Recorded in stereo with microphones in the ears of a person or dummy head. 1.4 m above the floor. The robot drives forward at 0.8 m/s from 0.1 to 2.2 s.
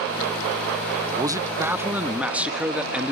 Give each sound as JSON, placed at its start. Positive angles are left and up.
{"t": 1.2, "sound": "a man speaking", "side_deg": -25, "distance_m": 0.7}